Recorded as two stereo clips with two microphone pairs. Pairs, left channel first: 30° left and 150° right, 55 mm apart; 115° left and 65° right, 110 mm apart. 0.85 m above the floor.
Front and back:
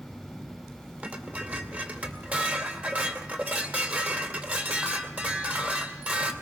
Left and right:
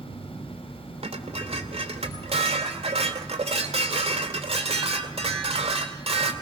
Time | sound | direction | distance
1.0 | dishes clattering | 90° right | 2 m